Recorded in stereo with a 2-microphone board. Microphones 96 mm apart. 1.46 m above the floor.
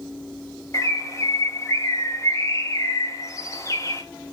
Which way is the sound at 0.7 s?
35° left (ahead or behind).